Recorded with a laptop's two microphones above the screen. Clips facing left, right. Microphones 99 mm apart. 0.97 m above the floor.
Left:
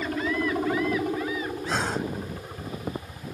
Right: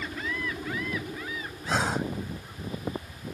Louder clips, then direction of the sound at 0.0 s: Left 7 dB; 60° left (ahead or behind).